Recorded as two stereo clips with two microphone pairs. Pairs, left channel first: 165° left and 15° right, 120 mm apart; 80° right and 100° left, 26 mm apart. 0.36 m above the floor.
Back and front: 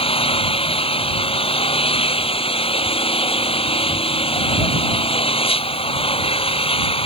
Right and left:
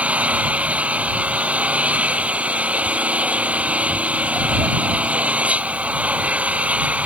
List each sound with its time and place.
0.0 s an engine running: 130° left